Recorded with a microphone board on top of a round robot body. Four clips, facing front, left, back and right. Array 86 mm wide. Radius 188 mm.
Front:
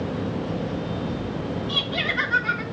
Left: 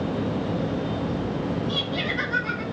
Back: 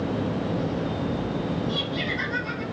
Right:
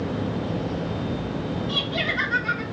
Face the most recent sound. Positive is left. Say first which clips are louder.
# right 1 dB, front 1 dB
turn(degrees=-15)